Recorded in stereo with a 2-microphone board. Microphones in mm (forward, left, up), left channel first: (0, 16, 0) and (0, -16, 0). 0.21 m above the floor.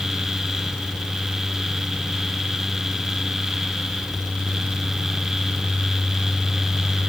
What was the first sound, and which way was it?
Only background noise.